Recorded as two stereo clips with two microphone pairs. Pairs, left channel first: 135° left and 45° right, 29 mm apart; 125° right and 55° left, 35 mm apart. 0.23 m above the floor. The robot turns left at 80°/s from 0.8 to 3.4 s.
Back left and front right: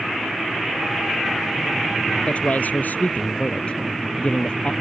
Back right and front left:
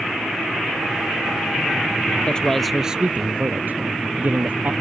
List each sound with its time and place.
2.3 s a man speaking: straight behind; by 4.7 s 85° left